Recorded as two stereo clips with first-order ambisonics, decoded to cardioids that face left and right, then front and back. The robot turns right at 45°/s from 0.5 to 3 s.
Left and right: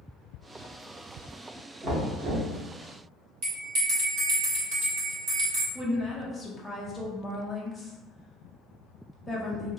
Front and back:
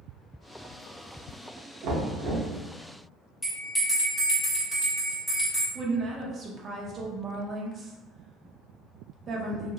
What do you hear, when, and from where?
1.8 s knocking: 155° right, 1.0 m; by 2.5 s 125° right, 1.0 m
3.4 s a bell: 90° right, 1.8 m
5.8 s a woman speaking: 175° right, 0.5 m